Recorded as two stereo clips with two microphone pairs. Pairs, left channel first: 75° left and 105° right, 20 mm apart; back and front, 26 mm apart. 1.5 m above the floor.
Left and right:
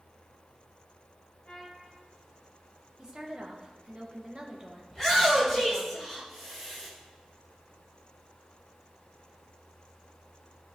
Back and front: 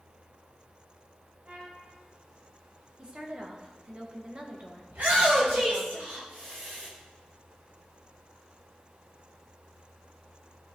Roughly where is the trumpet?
Ahead left.